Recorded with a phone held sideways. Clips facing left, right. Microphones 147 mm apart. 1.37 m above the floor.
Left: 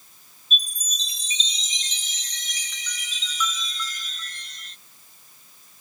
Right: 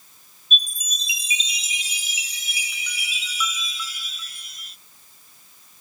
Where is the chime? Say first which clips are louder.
Right 2 dB; 10° right (ahead or behind).